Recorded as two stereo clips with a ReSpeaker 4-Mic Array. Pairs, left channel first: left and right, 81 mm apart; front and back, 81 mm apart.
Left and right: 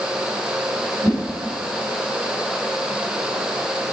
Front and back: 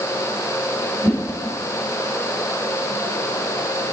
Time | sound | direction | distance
1.0 | a whoosh | 130° right | 3 m